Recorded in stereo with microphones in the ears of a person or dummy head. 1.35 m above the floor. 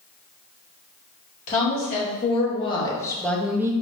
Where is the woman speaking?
40° left (ahead or behind), 1.7 m; by 3.7 s 15° right (ahead or behind), 0.5 m.